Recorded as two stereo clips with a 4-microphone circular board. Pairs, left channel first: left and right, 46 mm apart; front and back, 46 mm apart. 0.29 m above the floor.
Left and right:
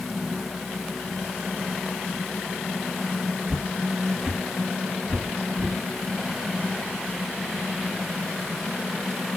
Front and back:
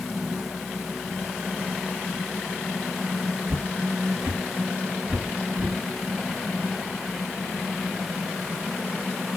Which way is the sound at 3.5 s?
170° right.